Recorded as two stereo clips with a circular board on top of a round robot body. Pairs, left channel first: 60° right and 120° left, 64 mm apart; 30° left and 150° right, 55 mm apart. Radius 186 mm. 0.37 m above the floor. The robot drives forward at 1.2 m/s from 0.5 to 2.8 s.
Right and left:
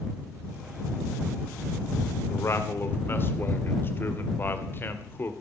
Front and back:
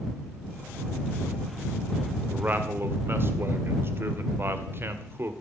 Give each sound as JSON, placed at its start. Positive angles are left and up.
{"t": 2.3, "sound": "a man speaking", "azimuth_deg": -90, "distance_m": 2.0}